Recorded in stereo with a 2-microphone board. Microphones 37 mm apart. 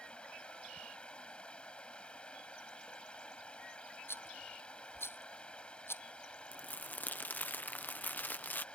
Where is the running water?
30° left (ahead or behind).